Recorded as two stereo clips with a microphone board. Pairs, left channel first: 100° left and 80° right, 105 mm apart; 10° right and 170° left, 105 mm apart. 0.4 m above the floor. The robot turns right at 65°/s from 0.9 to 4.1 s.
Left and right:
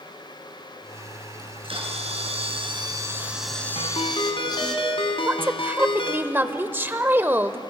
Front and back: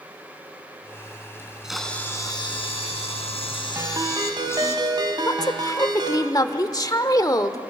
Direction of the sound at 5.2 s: 25° right.